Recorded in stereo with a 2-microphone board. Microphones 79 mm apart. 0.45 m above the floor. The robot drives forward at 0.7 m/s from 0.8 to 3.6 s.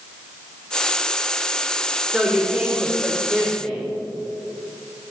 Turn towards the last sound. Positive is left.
turn(degrees=-5)  # may be behind; listen again after turning